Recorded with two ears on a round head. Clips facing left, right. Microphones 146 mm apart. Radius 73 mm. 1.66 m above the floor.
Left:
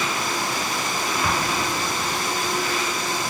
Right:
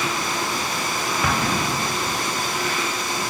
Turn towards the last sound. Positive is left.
turn(degrees=-55)  # may be behind; listen again after turning